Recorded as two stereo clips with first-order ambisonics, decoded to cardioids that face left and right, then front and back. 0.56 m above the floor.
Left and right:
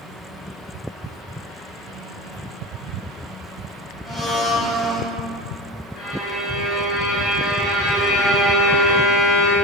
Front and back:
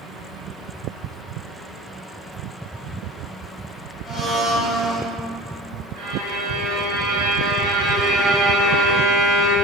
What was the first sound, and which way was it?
A blender, 25° left.